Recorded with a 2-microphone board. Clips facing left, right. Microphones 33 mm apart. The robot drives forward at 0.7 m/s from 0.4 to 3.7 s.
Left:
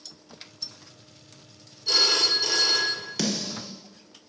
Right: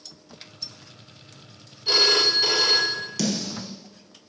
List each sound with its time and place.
1.9 s a phone ringing: 35° right (ahead or behind), 0.7 m; by 3.1 s 30° right (ahead or behind), 0.8 m
3.2 s a snare drum: 25° left (ahead or behind), 1.2 m; by 3.7 s 20° left (ahead or behind), 1.6 m